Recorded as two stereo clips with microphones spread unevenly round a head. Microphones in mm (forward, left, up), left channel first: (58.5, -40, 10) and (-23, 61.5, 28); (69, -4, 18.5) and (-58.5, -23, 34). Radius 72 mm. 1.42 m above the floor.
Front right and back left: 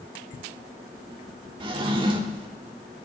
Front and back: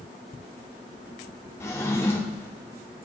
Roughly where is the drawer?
Left.